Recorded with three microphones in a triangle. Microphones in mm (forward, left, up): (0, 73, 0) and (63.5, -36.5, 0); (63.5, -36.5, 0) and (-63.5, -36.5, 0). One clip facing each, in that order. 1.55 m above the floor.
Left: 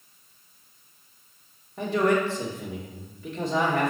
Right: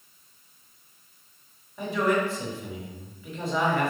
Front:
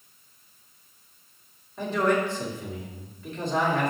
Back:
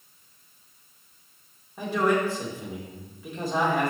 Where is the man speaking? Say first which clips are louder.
Left 2 dB, even; 100° left, 2.5 m.